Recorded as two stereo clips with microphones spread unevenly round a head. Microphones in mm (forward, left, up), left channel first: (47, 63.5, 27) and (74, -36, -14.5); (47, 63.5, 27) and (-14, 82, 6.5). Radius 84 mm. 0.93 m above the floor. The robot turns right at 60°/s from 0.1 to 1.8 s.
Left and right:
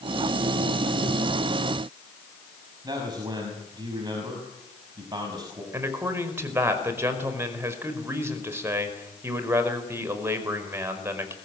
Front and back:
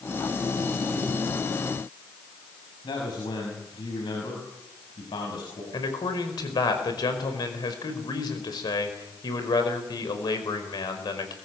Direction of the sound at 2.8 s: 25° right.